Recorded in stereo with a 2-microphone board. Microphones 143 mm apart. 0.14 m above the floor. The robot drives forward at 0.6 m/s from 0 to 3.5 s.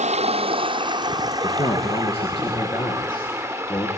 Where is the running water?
55° right (ahead or behind), 0.7 m; by 4.0 s 15° right (ahead or behind), 2.5 m.